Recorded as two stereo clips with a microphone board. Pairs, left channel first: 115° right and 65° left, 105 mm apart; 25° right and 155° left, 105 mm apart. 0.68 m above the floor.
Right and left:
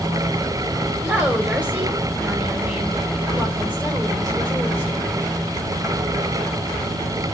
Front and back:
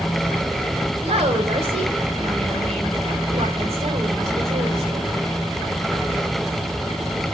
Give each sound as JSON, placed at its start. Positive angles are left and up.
{"t": 1.0, "sound": "a woman speaking", "azimuth_deg": 140, "distance_m": 2.5}